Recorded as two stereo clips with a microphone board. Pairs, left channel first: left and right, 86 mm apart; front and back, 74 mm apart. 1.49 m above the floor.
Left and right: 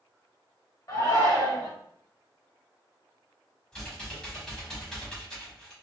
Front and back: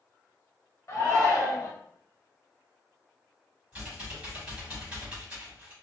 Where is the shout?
45° left, 1.1 m.